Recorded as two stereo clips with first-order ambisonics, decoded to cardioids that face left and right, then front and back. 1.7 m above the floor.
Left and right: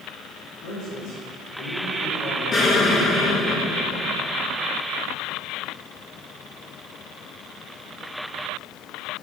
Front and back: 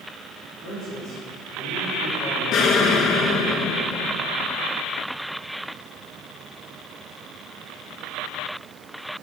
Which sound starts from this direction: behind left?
A man speaking, at 0.6 s.